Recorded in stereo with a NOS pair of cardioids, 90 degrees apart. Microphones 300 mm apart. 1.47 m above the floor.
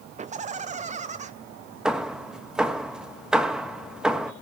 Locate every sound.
0.2 s laughter: 25° right, 0.6 m
1.9 s hammering: straight ahead, 1.7 m